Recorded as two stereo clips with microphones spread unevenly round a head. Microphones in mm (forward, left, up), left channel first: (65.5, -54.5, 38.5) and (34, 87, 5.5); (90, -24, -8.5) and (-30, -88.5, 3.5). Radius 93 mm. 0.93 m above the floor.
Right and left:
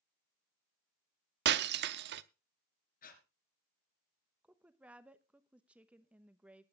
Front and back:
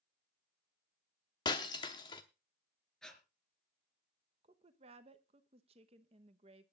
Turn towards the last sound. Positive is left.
turn(degrees=165)